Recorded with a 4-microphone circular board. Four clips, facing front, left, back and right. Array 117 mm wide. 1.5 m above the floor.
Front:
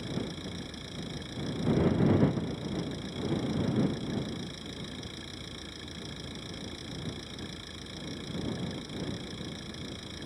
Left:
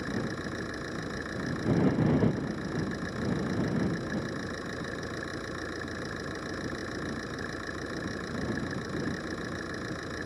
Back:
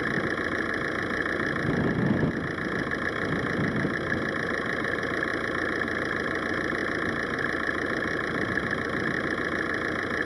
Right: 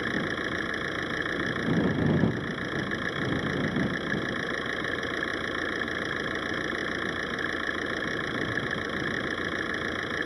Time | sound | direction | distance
0.0 | an engine running | 160° right | ?